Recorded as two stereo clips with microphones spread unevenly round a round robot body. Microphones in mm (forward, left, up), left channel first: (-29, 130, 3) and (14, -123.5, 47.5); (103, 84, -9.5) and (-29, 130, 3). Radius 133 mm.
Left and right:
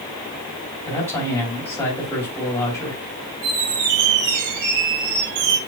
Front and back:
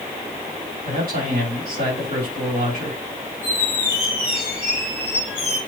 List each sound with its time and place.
0.8 s a man speaking: 175° left, 2.5 m
3.4 s a squeak: 100° right, 3.5 m